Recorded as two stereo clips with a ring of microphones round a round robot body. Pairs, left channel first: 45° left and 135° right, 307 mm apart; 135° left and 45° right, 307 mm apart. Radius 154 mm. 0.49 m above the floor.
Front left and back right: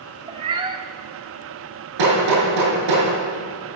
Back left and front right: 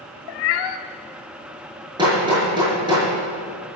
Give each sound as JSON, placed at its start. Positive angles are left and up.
{"t": 0.3, "sound": "a cat meowing", "azimuth_deg": 150, "distance_m": 0.8}
{"t": 2.0, "sound": "hammering", "azimuth_deg": -120, "distance_m": 6.0}